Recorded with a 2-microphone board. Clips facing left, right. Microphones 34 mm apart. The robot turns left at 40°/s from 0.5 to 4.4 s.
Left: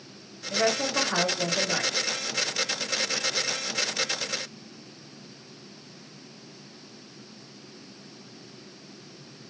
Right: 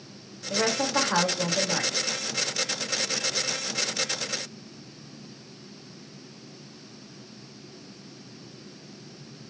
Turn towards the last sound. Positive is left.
turn(degrees=75)